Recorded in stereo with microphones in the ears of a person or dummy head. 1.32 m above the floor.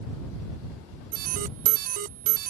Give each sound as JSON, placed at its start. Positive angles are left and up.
{"t": 1.1, "sound": "an alarm", "side_deg": -50}